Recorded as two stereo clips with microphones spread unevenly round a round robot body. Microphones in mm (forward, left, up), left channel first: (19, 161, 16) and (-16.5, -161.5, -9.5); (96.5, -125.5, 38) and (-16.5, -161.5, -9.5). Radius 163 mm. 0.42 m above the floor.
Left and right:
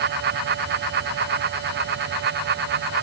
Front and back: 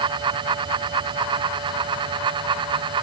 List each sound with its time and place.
Only background noise.